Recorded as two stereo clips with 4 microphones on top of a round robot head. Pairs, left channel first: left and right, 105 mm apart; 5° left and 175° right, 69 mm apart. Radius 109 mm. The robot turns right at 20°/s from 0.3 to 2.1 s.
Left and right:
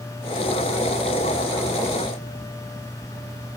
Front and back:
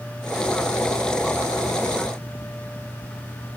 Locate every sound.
Only background noise.